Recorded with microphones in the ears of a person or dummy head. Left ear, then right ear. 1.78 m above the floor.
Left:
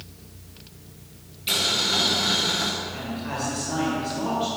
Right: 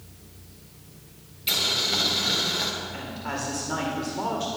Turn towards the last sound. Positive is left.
turn(degrees=-50)  # may be behind; listen again after turning